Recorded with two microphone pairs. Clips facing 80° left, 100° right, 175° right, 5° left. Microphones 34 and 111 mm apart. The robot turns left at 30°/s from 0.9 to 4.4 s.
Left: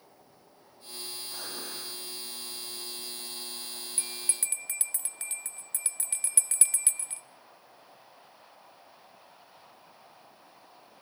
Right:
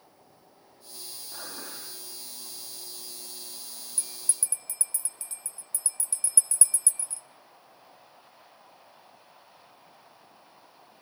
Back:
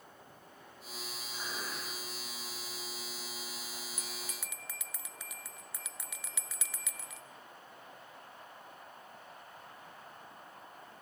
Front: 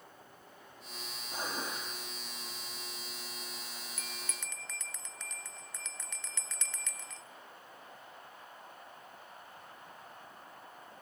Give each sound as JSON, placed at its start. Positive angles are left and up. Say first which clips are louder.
{"t": 1.3, "sound": "dishes clattering", "louder": "right 1 dB, front 4 dB", "azimuth_deg": 0, "distance_m": 4.0}
{"t": 4.0, "sound": "a bell", "louder": "even, back 1 dB", "azimuth_deg": 125, "distance_m": 0.5}